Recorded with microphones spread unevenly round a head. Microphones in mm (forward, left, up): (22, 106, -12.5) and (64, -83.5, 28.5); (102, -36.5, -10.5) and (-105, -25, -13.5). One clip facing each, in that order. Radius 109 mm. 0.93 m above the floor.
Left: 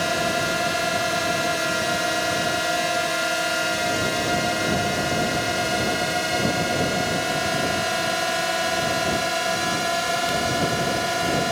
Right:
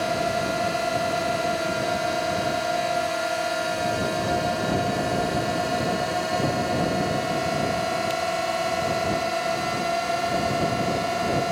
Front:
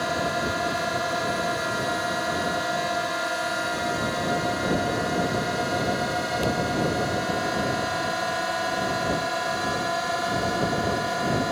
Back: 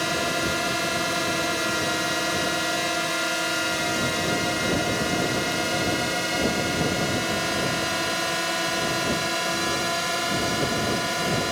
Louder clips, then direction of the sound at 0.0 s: Even, even; 155° left.